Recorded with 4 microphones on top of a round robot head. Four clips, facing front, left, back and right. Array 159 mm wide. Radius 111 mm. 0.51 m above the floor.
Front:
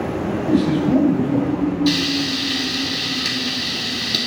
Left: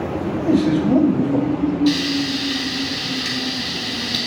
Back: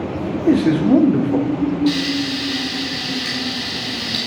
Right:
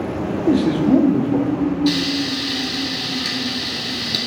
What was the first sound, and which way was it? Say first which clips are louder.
A man speaking: right 1 dB, back 4 dB; 160° right.